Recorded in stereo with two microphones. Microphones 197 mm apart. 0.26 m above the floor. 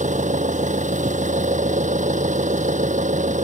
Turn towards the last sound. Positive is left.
turn(degrees=-40)  # may be behind; listen again after turning